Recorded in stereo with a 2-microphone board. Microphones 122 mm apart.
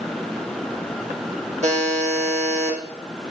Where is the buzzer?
65° right (ahead or behind), 1.3 m.